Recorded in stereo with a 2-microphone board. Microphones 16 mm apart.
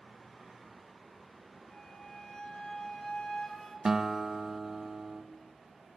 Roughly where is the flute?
Left.